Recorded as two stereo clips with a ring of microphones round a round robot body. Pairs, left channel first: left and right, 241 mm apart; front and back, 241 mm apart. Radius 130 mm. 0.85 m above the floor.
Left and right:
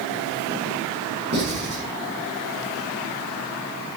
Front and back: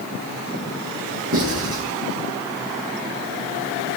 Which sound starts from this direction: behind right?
Writing, at 1.3 s.